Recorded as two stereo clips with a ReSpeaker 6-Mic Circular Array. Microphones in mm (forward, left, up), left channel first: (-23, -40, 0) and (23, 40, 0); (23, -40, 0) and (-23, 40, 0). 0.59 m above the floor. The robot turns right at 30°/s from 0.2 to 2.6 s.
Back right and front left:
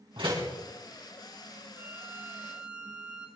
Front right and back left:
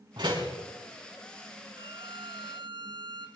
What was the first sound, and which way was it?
A door slam, 80° left.